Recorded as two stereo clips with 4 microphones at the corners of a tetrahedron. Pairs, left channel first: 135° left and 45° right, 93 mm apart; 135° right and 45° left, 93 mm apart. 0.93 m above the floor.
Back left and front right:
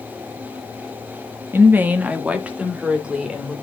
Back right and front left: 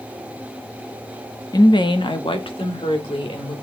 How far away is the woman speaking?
About 0.9 m.